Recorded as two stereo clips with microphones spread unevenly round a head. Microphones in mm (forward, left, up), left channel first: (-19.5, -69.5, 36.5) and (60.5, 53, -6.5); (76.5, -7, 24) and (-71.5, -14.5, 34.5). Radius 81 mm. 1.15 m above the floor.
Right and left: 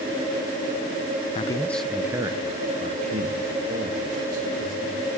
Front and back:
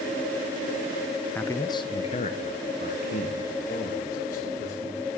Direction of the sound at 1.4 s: 65° right.